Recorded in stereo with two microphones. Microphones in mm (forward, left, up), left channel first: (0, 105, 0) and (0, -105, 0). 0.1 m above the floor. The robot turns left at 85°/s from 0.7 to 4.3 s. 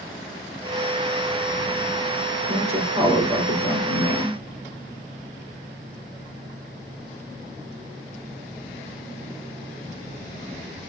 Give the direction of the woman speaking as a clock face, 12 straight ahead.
4 o'clock.